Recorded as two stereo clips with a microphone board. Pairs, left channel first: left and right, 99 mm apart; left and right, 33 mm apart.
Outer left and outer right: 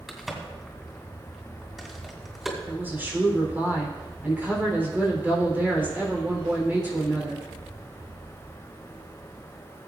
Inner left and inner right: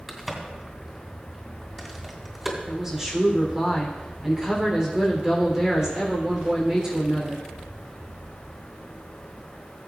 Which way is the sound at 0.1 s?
5° right (ahead or behind).